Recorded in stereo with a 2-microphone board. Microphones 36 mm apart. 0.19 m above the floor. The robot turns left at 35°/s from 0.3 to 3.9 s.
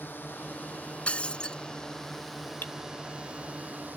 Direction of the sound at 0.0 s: 75° left.